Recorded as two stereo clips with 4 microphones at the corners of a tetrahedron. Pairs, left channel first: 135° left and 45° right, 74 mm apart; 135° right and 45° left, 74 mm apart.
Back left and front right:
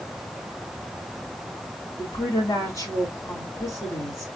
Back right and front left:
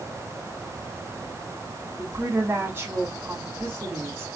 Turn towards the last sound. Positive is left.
turn(degrees=105)